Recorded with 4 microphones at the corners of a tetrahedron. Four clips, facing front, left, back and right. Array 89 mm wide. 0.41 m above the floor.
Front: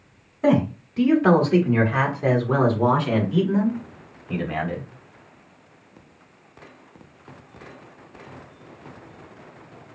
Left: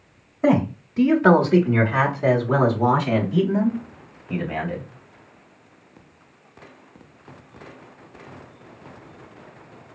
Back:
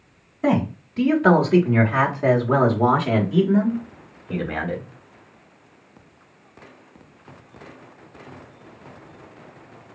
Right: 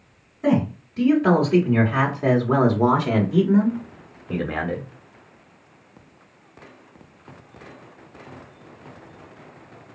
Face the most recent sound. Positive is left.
turn(degrees=-100)